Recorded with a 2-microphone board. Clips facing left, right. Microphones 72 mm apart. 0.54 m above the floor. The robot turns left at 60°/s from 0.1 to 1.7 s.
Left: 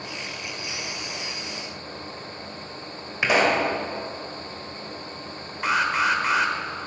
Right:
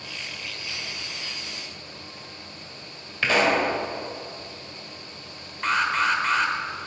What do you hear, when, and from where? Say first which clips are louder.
3.2 s a pop: left 1 dB; 15° left (ahead or behind), 1.9 m
5.6 s an alarm: left 1 dB; 5° left (ahead or behind), 1.1 m